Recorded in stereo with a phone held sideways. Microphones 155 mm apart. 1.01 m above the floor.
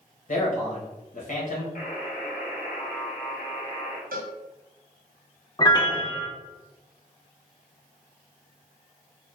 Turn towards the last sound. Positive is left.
turn(degrees=30)  # may be behind; listen again after turning